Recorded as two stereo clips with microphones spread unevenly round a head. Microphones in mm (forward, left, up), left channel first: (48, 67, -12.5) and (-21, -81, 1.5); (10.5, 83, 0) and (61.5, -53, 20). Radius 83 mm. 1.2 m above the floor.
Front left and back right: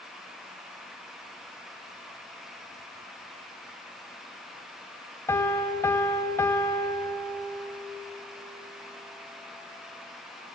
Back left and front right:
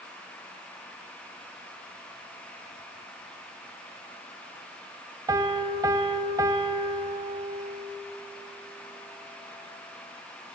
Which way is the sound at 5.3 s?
10° right.